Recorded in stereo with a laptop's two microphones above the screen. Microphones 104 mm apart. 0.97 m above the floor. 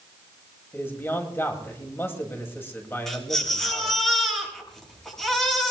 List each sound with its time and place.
0.7 s a man speaking: 20° left (ahead or behind), 1.9 m
3.1 s a baby crying: 5° left (ahead or behind), 6.5 m